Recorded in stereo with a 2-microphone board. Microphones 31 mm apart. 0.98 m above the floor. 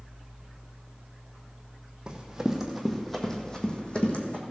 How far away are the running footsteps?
About 1.8 m.